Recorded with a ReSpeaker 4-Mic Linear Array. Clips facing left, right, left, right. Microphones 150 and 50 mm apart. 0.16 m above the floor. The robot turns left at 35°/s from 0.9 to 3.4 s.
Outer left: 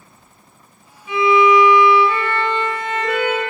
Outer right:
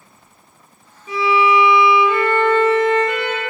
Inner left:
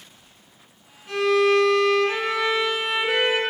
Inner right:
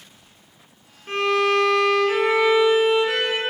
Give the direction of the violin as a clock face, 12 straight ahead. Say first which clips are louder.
Outer left 3 dB, inner left 1 dB; 4 o'clock.